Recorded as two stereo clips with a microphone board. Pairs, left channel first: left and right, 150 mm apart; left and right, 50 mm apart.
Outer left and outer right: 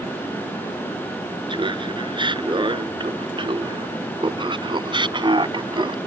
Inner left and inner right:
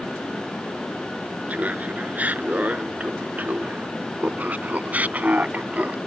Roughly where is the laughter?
Right.